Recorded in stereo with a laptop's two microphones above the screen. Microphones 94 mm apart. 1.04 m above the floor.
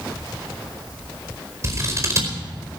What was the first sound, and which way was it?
Scissors, 35° right (ahead or behind).